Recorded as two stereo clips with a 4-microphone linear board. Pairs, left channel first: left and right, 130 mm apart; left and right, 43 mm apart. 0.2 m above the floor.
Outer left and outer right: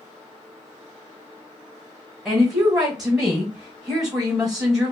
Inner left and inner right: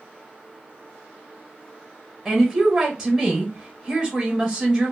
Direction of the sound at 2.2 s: 5° right (ahead or behind).